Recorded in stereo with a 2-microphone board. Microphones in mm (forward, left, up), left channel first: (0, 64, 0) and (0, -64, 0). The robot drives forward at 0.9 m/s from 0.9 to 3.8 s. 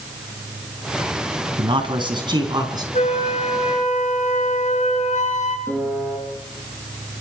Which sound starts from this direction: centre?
A piano, at 5.7 s.